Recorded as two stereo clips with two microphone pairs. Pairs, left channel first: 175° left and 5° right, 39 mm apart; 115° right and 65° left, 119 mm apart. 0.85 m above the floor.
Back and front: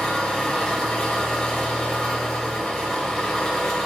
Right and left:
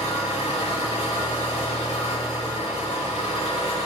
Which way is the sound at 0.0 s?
105° right.